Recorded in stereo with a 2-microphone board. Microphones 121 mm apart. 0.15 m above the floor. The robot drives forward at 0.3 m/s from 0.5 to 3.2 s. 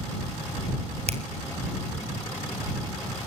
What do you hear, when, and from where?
1.1 s a finger snap: 60° right (ahead or behind), 3 m